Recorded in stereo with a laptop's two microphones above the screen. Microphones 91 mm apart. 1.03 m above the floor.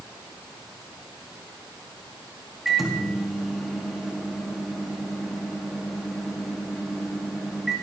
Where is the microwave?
5° right (ahead or behind), 1.7 m.